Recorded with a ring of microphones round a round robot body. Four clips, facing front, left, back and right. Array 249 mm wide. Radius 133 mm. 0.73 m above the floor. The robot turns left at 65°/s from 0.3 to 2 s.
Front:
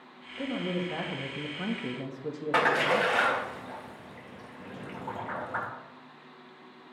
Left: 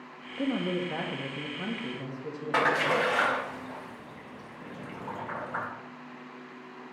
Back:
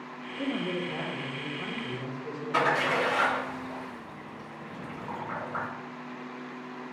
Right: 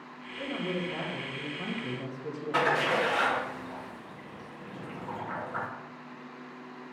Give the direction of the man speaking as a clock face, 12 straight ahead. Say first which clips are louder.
Left 4 dB, back 1 dB; 9 o'clock.